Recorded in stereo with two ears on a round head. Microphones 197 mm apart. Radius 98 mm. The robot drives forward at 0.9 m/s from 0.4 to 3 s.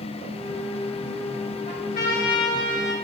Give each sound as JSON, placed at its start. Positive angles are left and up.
{"t": 1.7, "sound": "a trumpet", "side_deg": 40, "distance_m": 2.5}